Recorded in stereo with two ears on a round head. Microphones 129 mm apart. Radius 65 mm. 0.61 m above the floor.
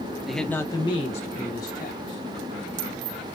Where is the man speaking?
Centre (ahead or behind), 0.8 m; by 2.2 s 65° left (ahead or behind), 1.6 m.